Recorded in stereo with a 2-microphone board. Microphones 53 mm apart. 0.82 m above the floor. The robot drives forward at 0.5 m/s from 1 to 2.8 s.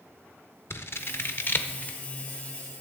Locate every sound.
0.7 s scissors: 55° left (ahead or behind), 0.6 m; by 2.0 s 35° left (ahead or behind), 0.9 m